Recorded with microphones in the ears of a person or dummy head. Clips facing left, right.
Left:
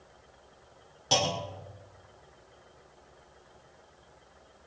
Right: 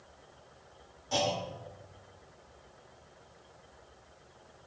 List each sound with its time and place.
1.1 s a clunk: 85° left, 3 m